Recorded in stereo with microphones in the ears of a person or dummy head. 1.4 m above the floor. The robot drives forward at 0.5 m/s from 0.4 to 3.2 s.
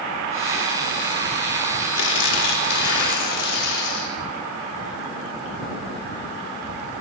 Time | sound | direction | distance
1.9 | tearing paper | 70° left (ahead or behind) | 4 m